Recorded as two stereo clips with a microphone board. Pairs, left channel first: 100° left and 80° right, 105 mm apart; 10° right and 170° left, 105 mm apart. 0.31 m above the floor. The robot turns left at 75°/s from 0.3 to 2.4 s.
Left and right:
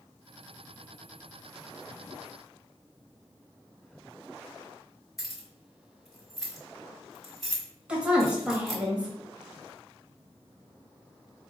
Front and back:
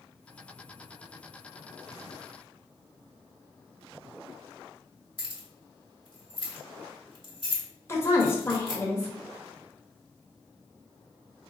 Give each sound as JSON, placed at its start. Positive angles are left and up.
{"t": 5.2, "sound": "keys jangling", "azimuth_deg": 10, "distance_m": 1.4}
{"t": 7.9, "sound": "a woman speaking", "azimuth_deg": -15, "distance_m": 1.1}